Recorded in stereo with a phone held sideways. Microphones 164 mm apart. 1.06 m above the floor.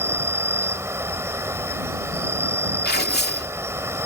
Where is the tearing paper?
85° left.